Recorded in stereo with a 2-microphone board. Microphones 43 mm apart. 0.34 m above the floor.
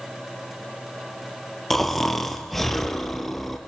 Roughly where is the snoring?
Centre.